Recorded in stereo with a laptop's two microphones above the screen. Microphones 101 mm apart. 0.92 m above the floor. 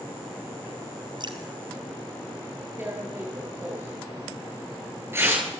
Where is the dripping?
50° right (ahead or behind), 2.5 m.